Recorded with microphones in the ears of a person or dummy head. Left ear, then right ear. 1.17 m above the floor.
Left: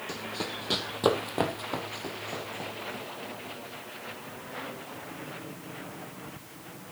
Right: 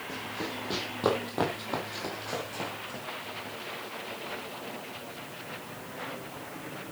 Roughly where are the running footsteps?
Left.